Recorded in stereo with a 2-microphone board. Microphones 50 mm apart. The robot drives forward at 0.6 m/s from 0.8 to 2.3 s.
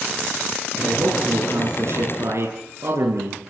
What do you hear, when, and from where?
0.8 s a man speaking: 60° right (ahead or behind), 9 m; by 3.4 s 65° right (ahead or behind), 8.5 m